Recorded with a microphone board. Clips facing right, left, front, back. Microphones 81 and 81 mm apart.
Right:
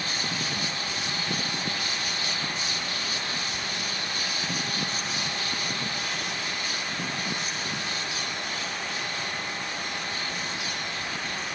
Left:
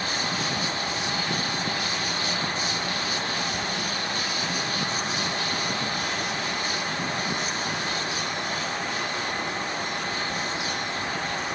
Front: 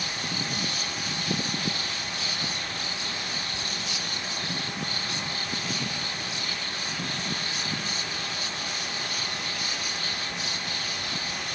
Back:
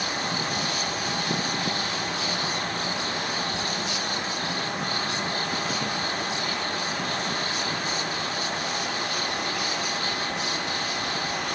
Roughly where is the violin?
I don't hear a violin.